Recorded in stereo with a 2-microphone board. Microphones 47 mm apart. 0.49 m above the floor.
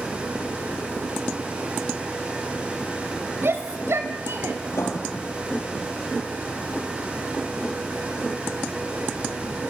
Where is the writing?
75° left (ahead or behind), 4 m.